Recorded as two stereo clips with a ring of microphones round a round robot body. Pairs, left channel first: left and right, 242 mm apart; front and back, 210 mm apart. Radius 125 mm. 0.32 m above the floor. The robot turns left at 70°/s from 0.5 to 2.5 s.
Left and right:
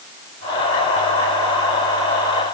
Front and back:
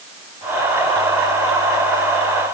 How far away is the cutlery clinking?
I don't hear cutlery clinking.